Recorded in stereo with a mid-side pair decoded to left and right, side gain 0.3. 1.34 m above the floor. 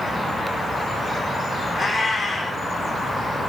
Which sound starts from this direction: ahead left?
A cat meowing, at 1.7 s.